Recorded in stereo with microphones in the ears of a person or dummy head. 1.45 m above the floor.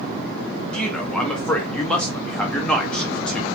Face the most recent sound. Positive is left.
turn(degrees=10)  # may be behind; listen again after turning